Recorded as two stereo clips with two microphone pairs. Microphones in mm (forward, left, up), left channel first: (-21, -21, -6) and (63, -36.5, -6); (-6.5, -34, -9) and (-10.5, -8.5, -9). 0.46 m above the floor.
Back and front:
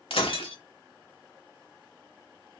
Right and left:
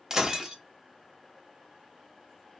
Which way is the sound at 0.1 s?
170° left.